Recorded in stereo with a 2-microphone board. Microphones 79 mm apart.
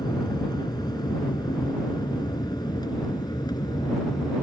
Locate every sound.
0.0 s an aircraft: 60° left (ahead or behind)